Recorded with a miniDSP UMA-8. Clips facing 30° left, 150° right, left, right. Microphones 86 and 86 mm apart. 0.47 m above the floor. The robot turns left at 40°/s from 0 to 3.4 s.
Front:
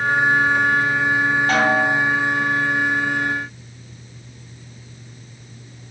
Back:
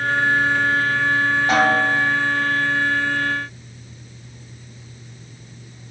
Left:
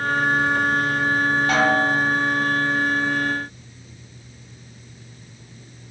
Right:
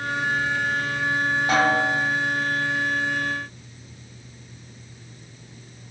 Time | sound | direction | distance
1.5 | a snare drum | 120° right | 0.7 m